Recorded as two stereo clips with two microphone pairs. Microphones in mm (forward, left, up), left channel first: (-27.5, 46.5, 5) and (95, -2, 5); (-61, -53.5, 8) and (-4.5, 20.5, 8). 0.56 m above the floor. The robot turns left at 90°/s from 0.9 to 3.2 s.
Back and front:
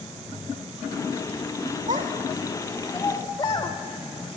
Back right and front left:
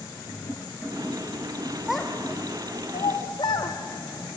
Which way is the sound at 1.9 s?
30° right.